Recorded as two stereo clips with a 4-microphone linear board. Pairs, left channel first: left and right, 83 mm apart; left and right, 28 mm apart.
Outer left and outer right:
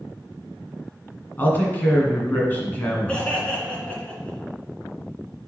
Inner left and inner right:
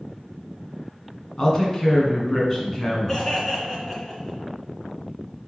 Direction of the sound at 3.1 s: 15° left (ahead or behind).